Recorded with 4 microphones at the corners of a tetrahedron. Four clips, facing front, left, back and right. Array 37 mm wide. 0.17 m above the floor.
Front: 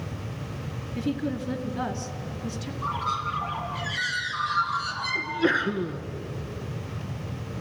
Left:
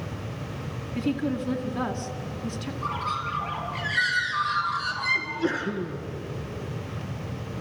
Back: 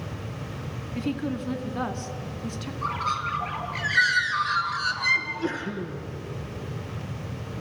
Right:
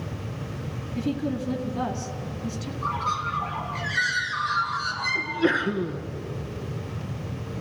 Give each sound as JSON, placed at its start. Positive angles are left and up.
{"t": 0.9, "sound": "a woman speaking", "azimuth_deg": 140, "distance_m": 2.0}
{"t": 2.8, "sound": "a bird", "azimuth_deg": 175, "distance_m": 2.5}
{"t": 5.2, "sound": "a sneeze", "azimuth_deg": -40, "distance_m": 1.8}